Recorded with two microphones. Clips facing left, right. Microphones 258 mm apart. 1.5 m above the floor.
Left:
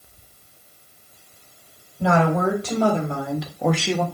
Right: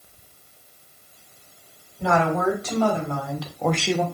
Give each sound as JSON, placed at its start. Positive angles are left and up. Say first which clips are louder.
{"t": 2.0, "sound": "a woman speaking", "louder": "left 2 dB", "side_deg": 35, "distance_m": 2.5}